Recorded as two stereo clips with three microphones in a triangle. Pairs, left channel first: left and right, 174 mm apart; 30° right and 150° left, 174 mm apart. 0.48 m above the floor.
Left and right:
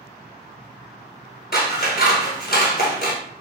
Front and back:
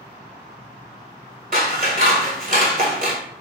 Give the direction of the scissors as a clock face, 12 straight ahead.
8 o'clock.